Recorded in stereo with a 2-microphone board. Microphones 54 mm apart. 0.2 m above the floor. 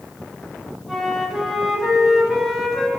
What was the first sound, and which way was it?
A flute, 5° right (ahead or behind).